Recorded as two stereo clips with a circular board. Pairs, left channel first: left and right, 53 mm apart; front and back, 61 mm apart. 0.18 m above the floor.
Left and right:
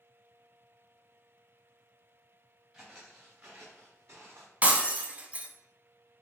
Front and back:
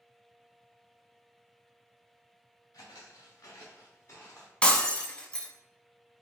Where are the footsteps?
15° right, 1.4 m; by 4.5 s 55° right, 1.4 m.